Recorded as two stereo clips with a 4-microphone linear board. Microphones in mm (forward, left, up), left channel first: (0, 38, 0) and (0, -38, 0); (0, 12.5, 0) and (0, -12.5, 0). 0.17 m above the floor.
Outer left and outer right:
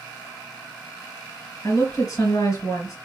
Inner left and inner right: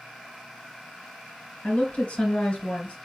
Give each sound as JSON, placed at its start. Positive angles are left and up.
{"t": 1.6, "sound": "a woman speaking", "side_deg": 55, "distance_m": 2.5}